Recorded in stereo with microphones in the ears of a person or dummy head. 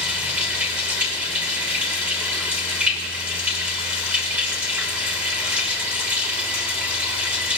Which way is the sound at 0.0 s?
10° right (ahead or behind).